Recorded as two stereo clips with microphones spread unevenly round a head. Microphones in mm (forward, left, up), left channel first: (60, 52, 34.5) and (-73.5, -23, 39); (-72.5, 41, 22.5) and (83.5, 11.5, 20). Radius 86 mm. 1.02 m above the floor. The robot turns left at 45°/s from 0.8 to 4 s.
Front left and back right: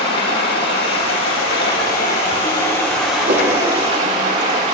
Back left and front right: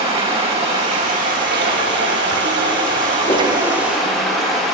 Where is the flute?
No flute in this recording.